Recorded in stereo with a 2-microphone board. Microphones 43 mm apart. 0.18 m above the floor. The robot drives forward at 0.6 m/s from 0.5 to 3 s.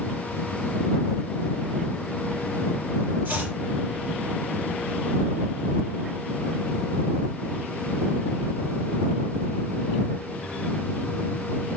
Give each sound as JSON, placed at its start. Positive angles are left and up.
{"t": 3.2, "sound": "chopping", "side_deg": -50, "distance_m": 4.5}